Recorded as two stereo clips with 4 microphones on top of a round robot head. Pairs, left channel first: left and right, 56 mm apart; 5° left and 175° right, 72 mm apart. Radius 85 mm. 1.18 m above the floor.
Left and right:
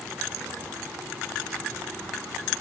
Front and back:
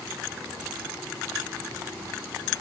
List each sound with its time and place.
Only background noise.